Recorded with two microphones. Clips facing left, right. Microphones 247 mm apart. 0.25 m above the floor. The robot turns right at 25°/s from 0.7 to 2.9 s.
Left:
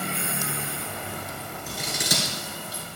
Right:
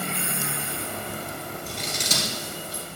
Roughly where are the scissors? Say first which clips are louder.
Left 4 dB; centre.